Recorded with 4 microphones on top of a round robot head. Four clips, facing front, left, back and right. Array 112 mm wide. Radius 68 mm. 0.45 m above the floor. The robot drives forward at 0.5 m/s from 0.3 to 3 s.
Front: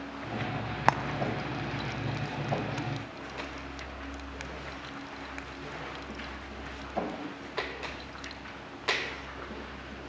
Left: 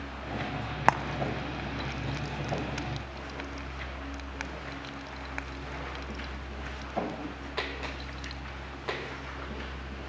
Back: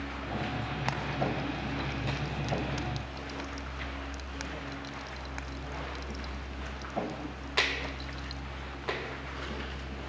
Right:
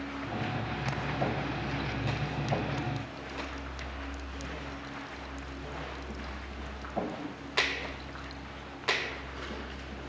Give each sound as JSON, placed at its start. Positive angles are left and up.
{"t": 0.9, "sound": "frying", "azimuth_deg": 55, "distance_m": 1.3}